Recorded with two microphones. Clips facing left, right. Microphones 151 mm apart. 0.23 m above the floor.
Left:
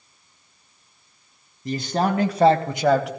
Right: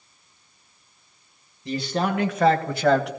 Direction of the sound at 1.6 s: 45° left (ahead or behind).